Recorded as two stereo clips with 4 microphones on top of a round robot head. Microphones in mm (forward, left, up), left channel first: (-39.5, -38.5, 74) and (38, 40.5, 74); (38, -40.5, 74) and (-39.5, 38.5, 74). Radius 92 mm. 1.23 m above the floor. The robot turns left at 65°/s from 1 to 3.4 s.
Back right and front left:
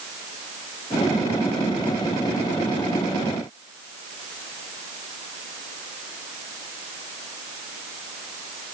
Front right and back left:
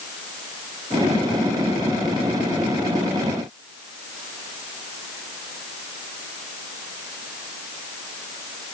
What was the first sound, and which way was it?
Only background noise.